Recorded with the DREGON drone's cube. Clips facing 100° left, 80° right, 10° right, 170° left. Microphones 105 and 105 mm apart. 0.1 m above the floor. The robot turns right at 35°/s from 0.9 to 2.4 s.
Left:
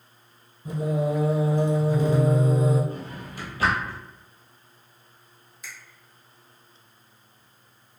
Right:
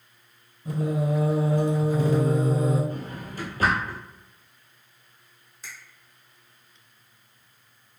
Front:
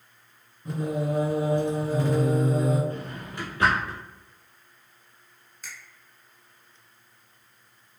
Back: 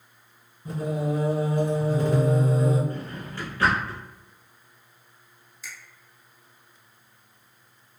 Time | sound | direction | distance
0.7 | singing | 95° left | 1.8 m
2.9 | a drawer | 80° right | 1.1 m
5.6 | a finger snap | 35° right | 1.4 m